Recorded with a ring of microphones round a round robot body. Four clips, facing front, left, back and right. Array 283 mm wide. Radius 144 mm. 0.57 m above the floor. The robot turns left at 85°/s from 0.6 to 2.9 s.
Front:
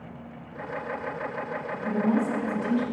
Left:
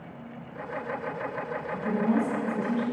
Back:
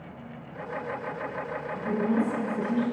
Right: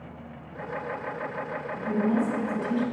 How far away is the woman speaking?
About 4.5 m.